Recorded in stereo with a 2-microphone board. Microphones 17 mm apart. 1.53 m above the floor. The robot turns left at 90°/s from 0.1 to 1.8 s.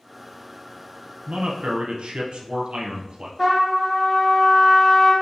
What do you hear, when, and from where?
1.3 s a man speaking: 60° right, 0.7 m; by 3.3 s 110° right, 0.7 m
3.4 s a trumpet: 15° left (ahead or behind), 1.4 m